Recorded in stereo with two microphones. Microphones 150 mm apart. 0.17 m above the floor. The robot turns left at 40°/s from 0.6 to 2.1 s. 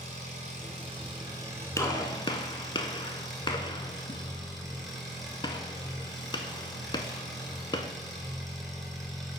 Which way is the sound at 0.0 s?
120° right.